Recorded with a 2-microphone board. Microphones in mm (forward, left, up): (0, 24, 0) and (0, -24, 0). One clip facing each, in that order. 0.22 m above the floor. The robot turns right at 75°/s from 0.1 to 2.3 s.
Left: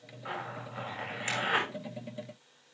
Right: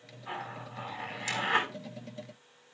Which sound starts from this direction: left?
A zipper, at 0.2 s.